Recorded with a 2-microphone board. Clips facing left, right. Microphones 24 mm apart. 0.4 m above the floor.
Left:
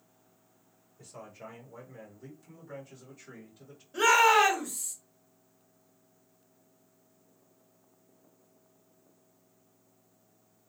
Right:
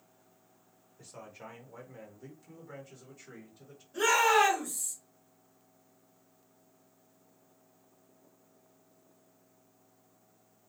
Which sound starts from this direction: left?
A shout, at 3.9 s.